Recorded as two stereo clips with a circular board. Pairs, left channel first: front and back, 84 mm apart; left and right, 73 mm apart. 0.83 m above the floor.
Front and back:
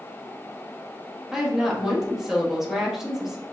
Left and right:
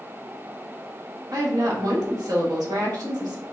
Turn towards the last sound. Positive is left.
turn(degrees=-95)